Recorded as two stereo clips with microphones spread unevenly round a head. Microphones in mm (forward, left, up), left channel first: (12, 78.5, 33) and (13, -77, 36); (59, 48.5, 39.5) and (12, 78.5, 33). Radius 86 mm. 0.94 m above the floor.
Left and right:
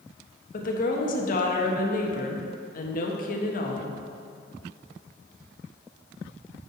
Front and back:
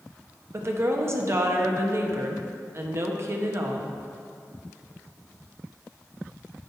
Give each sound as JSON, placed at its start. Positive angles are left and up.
{"t": 0.5, "sound": "a woman speaking", "azimuth_deg": 120, "distance_m": 1.1}